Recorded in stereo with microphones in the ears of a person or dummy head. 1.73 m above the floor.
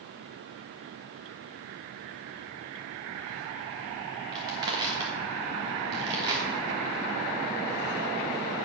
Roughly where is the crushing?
Right.